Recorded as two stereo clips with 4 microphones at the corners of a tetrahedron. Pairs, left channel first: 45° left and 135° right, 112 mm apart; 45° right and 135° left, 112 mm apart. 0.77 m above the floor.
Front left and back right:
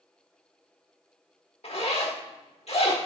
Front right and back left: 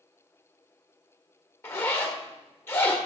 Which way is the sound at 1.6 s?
25° left.